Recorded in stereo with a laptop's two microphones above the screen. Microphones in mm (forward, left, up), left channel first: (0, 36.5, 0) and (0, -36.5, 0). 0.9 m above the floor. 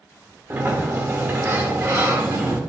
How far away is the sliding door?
About 1.4 m.